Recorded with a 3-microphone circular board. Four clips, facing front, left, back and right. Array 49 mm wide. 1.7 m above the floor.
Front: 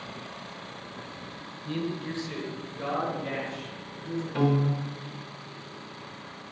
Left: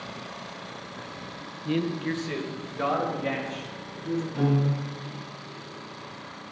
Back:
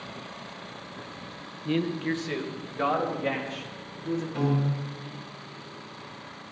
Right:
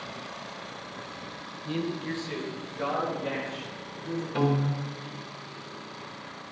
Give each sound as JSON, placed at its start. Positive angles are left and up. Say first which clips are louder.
{"t": 1.6, "sound": "a man speaking", "louder": "left 4 dB, back 5 dB", "azimuth_deg": 150, "distance_m": 1.5}
{"t": 4.3, "sound": "a piano", "louder": "right 1 dB, front 5 dB", "azimuth_deg": -65, "distance_m": 4.0}